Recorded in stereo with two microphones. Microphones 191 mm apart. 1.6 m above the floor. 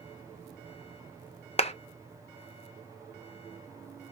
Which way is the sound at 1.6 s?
35° left (ahead or behind).